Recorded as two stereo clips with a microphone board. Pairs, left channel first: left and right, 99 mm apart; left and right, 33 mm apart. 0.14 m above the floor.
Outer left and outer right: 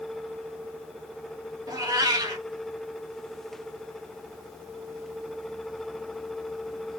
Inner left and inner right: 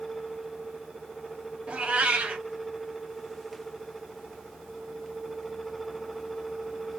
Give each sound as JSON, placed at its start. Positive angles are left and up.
{"t": 1.7, "sound": "a cat meowing", "side_deg": -35, "distance_m": 0.9}